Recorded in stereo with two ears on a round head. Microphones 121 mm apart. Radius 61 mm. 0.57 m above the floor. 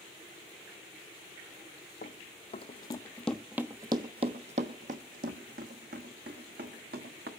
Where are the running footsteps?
55° left (ahead or behind), 1.0 m; by 7.3 s 75° right (ahead or behind), 2.5 m.